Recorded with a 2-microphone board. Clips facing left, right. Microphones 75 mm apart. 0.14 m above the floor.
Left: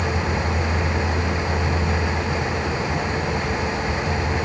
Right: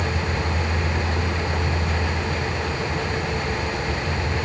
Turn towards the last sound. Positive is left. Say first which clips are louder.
# left 2 dB
turn(degrees=65)  # may be behind; listen again after turning